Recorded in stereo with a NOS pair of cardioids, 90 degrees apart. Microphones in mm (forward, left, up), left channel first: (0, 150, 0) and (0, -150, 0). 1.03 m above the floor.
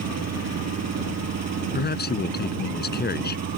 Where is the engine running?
60° right.